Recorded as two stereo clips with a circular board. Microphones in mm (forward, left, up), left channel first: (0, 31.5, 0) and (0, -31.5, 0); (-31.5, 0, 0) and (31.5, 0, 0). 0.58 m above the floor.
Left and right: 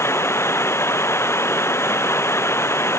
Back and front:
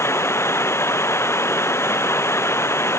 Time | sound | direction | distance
0.0 | running water | 135° left | ?